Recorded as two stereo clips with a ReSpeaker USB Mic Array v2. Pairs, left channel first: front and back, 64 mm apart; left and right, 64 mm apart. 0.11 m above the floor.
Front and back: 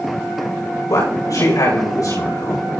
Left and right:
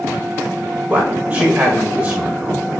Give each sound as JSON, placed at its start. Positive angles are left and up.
{"t": 0.9, "sound": "a man speaking", "azimuth_deg": -15, "distance_m": 6.5}